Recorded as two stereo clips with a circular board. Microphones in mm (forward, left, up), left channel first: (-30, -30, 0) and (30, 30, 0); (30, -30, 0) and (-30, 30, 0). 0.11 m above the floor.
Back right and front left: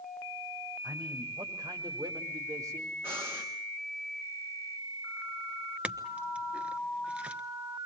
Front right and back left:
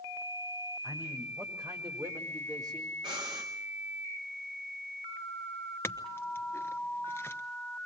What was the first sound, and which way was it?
A man speaking, 80° left.